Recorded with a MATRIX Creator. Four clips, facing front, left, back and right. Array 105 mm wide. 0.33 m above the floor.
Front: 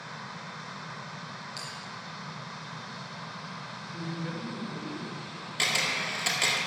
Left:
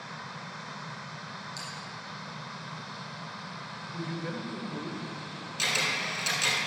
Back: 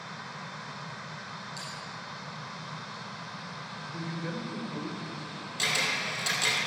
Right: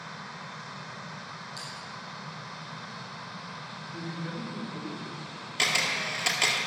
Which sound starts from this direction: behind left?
A man speaking, at 3.9 s.